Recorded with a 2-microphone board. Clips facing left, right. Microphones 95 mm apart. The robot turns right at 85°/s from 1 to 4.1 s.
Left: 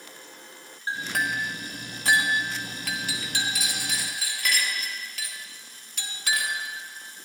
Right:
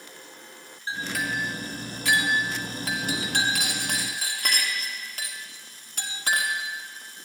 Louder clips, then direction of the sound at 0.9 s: Left 1 dB; 45° left (ahead or behind).